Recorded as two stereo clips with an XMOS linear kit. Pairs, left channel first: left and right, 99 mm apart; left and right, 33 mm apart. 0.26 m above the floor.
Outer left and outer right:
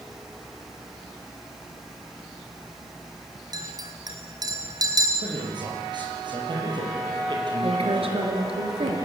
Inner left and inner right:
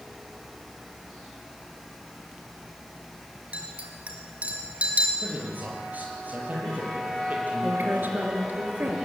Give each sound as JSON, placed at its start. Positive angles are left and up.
{"t": 3.5, "sound": "a clink", "side_deg": -40, "distance_m": 3.5}
{"t": 5.2, "sound": "a man speaking", "side_deg": -50, "distance_m": 7.0}
{"t": 7.6, "sound": "a woman speaking", "side_deg": -75, "distance_m": 4.5}